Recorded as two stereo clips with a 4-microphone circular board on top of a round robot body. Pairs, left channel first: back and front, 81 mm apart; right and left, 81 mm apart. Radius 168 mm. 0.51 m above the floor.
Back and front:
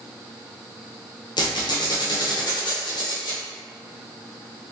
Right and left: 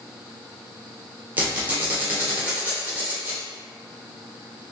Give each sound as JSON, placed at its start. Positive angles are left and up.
{"t": 1.4, "sound": "a squeak", "azimuth_deg": 160, "distance_m": 1.0}